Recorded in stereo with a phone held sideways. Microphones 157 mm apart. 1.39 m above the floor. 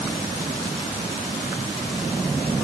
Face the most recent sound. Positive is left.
No sound to turn to.